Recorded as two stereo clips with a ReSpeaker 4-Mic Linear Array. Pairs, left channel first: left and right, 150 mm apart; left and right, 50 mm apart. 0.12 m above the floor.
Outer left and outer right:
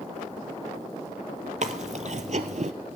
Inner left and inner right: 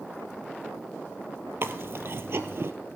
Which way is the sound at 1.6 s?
55° right (ahead or behind).